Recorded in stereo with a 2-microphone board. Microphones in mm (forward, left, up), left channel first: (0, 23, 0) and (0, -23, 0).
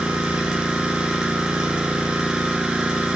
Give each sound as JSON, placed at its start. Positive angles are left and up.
{"t": 0.0, "sound": "an engine running", "side_deg": -15, "distance_m": 1.7}